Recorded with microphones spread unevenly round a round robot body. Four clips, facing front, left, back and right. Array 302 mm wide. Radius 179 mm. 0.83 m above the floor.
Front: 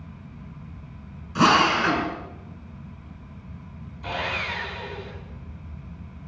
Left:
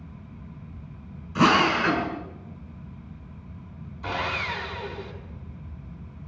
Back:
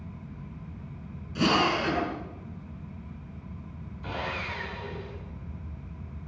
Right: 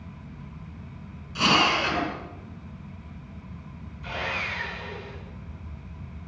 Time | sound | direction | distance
1.4 | a drill | 30° left | 7.5 m
4.0 | sawing | 80° left | 6 m